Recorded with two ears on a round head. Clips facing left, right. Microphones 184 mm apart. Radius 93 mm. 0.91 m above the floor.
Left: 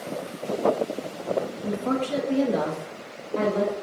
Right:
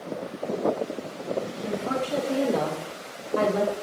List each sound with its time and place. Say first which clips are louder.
1.6 s a woman speaking: left 2 dB; 50° left (ahead or behind), 0.7 m; by 3.7 s 10° right (ahead or behind), 1.1 m